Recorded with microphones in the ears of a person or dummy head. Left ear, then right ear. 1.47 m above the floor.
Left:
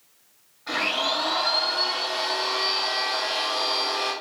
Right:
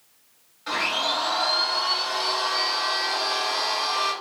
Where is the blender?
40° right (ahead or behind), 1.1 m.